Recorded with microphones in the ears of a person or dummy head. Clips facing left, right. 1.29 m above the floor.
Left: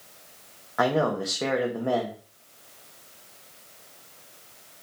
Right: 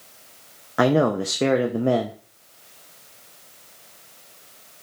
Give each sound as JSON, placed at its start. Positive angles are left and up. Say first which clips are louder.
{"t": 0.8, "sound": "a man speaking", "louder": "right 5 dB", "side_deg": -45, "distance_m": 0.5}